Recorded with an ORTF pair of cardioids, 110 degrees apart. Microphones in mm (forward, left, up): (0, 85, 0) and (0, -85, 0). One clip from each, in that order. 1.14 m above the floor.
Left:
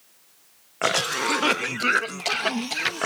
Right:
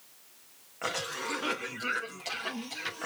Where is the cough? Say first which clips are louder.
Left 11 dB; 60° left, 0.5 m.